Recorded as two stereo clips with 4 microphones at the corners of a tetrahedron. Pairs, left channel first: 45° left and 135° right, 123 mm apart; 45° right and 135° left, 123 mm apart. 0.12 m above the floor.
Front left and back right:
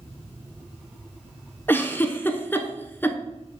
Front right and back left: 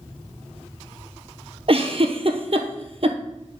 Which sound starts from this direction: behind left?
A giggle, at 1.7 s.